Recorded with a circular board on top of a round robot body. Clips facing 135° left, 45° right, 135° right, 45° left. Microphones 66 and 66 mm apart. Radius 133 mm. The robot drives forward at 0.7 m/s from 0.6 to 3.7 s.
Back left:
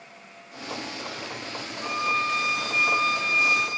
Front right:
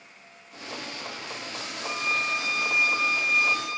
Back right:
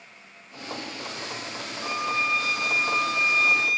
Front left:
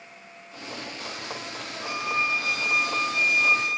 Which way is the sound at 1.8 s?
120° left.